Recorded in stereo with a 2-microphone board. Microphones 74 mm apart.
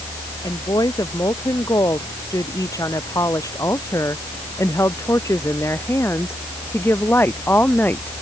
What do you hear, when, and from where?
0.4 s a woman speaking: 55° left (ahead or behind); by 8.1 s 25° left (ahead or behind)